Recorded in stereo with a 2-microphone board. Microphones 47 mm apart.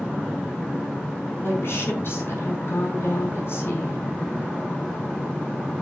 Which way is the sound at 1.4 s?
55° left (ahead or behind).